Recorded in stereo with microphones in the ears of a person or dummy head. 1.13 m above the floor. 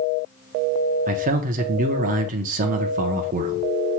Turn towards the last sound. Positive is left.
turn(degrees=-45)  # may be behind; listen again after turning